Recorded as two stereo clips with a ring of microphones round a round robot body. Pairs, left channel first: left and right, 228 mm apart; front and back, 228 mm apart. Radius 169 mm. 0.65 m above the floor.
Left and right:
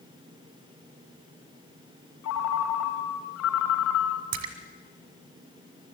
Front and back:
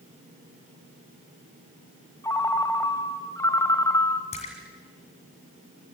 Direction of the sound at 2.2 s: 75° left.